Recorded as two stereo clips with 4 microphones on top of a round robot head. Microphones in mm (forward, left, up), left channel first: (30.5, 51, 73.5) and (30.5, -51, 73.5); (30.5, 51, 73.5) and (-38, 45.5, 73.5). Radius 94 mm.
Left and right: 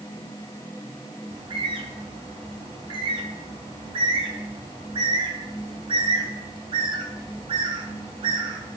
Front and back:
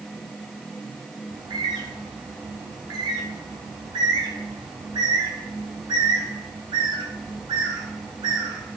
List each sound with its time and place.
1.3 s a bird: 140° right, 0.9 m